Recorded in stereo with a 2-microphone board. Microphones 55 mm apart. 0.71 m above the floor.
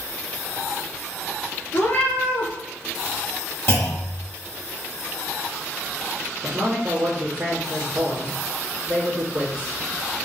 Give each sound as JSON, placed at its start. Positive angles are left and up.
{"t": 1.7, "sound": "a cat meowing", "side_deg": 45, "distance_m": 0.8}
{"t": 3.7, "sound": "a clunk", "side_deg": 55, "distance_m": 1.8}
{"t": 6.4, "sound": "a man speaking", "side_deg": -50, "distance_m": 1.3}